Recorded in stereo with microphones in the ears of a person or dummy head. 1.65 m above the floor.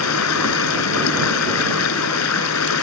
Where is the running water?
85° left.